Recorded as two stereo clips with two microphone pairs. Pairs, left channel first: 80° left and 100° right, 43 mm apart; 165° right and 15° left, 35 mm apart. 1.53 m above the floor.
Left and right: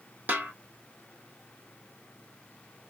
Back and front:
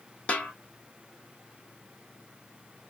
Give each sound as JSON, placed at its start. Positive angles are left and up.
{"t": 0.3, "sound": "a snare drum", "azimuth_deg": -125, "distance_m": 1.1}